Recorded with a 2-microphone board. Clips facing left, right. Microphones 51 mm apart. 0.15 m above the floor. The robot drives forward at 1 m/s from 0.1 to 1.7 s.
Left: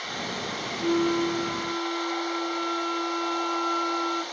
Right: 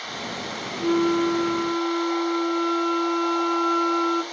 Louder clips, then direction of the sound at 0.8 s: Right 3 dB; 20° right (ahead or behind).